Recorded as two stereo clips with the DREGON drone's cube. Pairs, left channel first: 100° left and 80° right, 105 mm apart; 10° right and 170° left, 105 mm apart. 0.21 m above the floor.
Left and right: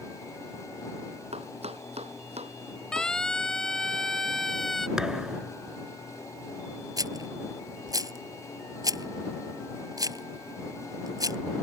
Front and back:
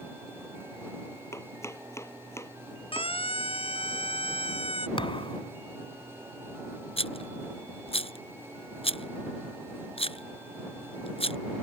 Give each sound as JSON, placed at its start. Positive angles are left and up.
{"t": 1.3, "sound": "chopping", "azimuth_deg": -75}
{"t": 2.9, "sound": "a siren", "azimuth_deg": 15}
{"t": 5.0, "sound": "a thud", "azimuth_deg": 5}
{"t": 7.0, "sound": "a rattle", "azimuth_deg": -25}